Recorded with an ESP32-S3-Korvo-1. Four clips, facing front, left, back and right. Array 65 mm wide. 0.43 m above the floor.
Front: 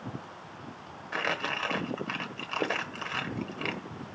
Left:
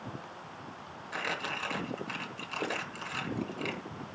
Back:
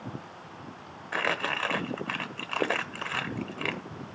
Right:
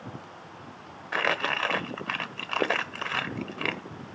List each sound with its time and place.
1.1 s crumpling: 115° right, 1.2 m